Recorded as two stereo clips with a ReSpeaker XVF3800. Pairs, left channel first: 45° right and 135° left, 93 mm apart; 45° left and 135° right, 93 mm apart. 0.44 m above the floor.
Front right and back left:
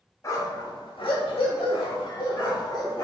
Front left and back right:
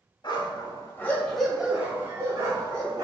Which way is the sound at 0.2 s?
10° left.